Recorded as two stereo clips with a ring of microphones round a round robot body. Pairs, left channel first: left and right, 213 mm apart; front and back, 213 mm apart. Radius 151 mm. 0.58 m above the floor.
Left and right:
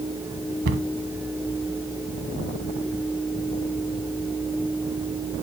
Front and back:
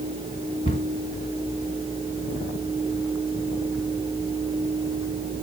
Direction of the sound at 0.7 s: 70° right.